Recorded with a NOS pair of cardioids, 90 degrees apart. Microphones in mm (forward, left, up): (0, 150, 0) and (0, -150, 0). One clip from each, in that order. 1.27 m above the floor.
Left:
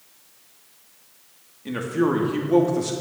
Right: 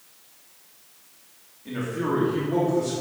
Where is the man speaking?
50° left, 3 m.